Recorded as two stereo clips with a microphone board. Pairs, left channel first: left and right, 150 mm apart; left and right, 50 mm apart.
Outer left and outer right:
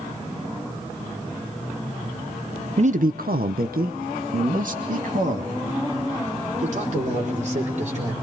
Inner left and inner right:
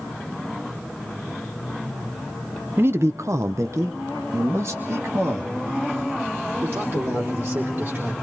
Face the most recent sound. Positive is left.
turn(degrees=-50)  # may be behind; listen again after turning